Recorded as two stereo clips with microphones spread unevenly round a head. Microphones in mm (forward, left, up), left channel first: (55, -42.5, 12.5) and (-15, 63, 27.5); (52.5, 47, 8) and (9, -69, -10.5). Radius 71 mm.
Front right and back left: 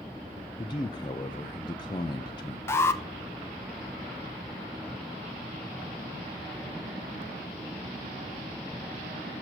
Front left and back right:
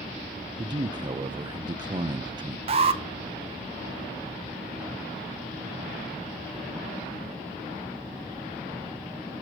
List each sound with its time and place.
0.6 s a man speaking: 95° right, 0.5 m
2.7 s an alarm: 120° right, 0.6 m